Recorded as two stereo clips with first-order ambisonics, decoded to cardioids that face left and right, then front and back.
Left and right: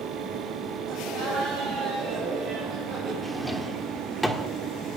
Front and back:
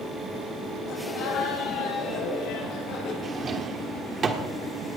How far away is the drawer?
About 1.4 m.